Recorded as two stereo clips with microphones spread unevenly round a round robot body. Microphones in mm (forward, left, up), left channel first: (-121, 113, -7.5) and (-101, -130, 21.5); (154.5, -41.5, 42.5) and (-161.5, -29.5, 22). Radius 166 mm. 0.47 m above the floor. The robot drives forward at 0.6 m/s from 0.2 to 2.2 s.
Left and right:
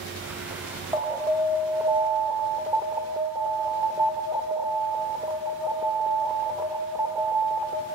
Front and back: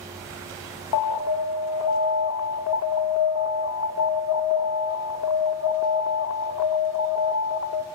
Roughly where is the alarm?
Ahead.